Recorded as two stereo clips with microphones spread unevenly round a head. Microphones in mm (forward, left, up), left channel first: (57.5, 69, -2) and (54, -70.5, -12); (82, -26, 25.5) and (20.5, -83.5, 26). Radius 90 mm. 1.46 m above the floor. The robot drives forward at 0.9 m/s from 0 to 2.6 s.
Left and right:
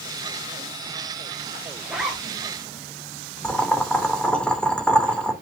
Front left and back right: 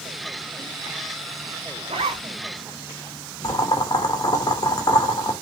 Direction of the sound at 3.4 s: 5° left.